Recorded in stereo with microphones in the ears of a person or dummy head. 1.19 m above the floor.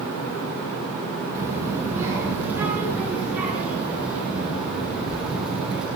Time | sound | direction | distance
1.4 | a child speaking | 10° right (ahead or behind) | 9 m